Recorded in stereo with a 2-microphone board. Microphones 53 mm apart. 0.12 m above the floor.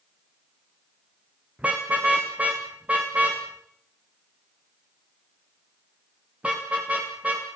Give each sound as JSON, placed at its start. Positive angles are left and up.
{"t": 1.6, "sound": "a car horn", "side_deg": -20, "distance_m": 5.5}